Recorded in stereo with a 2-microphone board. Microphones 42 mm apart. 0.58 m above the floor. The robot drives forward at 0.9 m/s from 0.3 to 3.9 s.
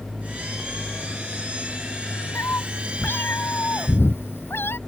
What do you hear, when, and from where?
2.4 s a cat meowing: 75° left (ahead or behind); by 4.8 s 70° left (ahead or behind)